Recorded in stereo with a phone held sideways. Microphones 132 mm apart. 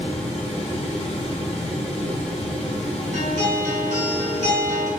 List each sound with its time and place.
0.0 s a fan: 55° left (ahead or behind), 1.5 m
3.1 s a guitar: 85° right, 2.5 m